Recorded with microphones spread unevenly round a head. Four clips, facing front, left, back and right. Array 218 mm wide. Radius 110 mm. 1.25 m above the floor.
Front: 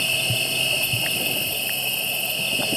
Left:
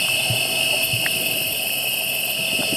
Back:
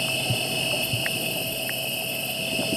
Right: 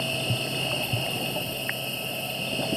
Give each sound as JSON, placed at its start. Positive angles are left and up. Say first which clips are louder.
{"t": 0.0, "sound": "an insect", "louder": "left 3 dB, even", "azimuth_deg": 70, "distance_m": 1.5}